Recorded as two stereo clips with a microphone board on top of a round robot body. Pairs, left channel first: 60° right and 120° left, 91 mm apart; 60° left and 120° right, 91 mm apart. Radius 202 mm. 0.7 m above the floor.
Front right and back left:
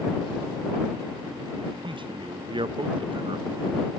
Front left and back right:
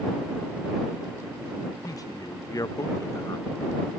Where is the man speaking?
105° left.